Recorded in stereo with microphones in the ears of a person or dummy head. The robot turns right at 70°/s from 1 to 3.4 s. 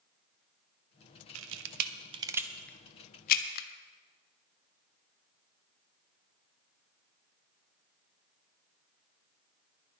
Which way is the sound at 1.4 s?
75° right (ahead or behind).